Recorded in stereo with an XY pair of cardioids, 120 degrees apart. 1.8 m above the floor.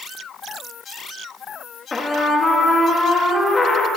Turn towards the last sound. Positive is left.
turn(degrees=30)